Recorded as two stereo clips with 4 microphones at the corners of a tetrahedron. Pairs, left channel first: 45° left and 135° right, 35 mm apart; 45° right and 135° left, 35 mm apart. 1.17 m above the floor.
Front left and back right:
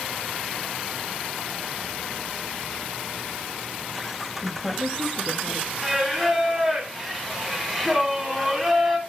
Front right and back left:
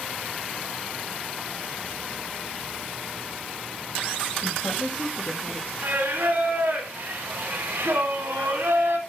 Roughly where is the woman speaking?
Ahead right.